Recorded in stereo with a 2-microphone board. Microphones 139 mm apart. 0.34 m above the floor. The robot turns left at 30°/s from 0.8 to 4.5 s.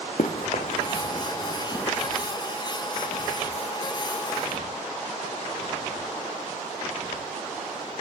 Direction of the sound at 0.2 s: 65° left (ahead or behind).